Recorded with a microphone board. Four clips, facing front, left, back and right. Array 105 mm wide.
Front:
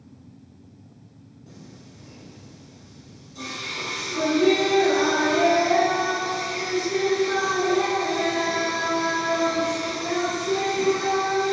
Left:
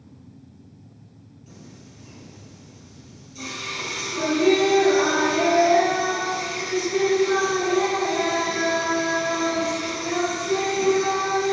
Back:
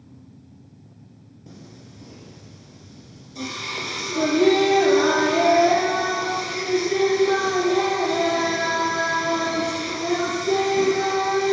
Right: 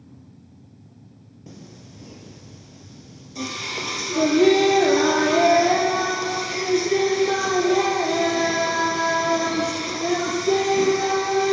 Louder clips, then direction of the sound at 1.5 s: Right 3 dB, back 2 dB; 110° right.